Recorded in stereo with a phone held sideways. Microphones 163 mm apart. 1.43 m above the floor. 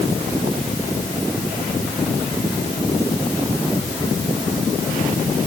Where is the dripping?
No dripping in this recording.